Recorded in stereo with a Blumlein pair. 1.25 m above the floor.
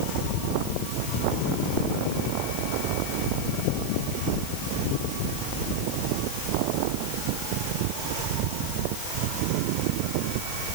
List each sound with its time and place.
Only background noise.